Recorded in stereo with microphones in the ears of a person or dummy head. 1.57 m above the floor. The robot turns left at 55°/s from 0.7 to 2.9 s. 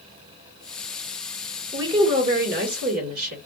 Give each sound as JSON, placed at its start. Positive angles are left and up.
{"t": 1.7, "sound": "a woman speaking", "azimuth_deg": -20, "distance_m": 2.0}